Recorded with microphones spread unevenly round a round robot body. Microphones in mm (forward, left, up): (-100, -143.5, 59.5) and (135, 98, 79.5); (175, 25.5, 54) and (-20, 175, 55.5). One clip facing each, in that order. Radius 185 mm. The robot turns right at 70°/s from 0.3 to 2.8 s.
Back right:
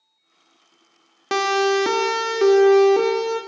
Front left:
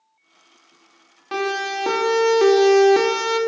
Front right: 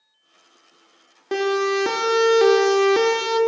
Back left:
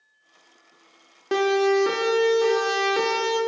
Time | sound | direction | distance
1.3 | a siren | 130° right | 2.5 m